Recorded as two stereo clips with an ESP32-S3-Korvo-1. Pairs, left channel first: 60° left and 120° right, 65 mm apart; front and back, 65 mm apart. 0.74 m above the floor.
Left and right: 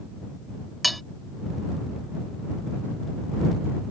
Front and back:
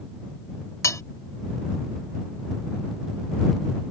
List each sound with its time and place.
0.8 s cutlery clinking: 30° right